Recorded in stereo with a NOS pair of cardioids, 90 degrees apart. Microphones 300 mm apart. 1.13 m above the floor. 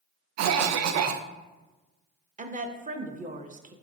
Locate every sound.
0.4 s a cough: 60° right, 0.6 m
2.4 s a woman speaking: 25° right, 0.6 m